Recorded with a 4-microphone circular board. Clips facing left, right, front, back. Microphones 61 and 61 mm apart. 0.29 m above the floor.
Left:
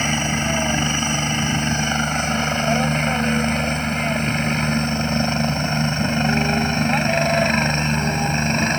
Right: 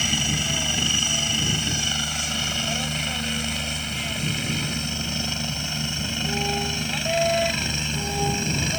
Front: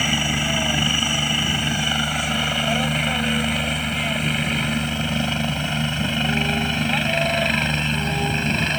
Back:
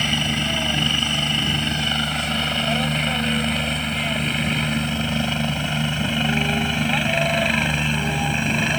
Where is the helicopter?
75° left; by 8.8 s 100° left.